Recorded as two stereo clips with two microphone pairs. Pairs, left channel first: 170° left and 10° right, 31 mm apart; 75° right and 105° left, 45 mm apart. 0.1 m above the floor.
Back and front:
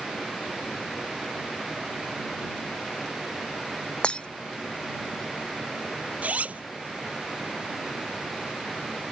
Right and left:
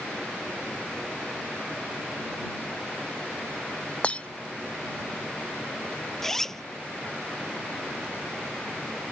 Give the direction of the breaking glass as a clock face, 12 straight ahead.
5 o'clock.